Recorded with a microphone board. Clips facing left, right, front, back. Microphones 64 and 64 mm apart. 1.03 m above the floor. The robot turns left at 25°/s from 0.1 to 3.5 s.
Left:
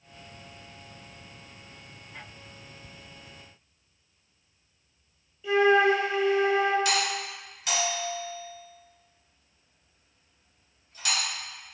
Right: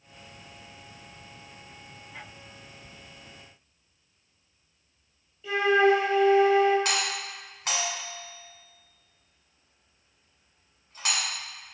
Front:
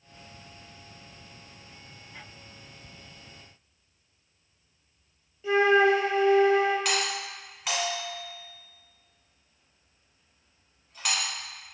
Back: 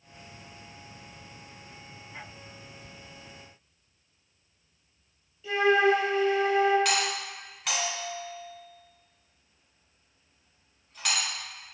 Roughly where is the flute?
Ahead.